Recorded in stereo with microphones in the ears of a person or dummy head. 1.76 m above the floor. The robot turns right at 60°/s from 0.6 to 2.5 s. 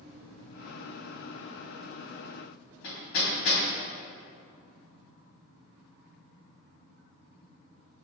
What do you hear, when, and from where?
2.8 s hammering: 60° left (ahead or behind), 3 m